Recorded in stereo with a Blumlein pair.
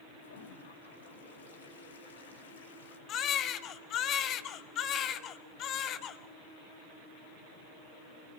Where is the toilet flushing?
65° left, 3 m.